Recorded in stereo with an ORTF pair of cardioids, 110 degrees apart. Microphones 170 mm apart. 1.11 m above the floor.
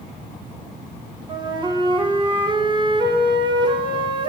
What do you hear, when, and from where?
1.3 s a flute: 25° right, 0.7 m